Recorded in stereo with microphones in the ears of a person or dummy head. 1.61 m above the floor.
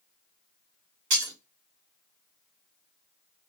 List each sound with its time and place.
1.1 s breaking glass: 60° right (ahead or behind), 1.6 m